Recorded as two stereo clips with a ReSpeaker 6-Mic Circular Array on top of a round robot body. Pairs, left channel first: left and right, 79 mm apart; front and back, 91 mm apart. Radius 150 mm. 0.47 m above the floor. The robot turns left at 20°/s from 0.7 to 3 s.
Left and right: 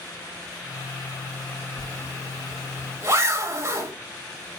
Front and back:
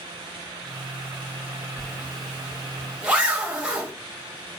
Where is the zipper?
85° right, 1.3 m; by 3.9 s 110° right, 1.3 m.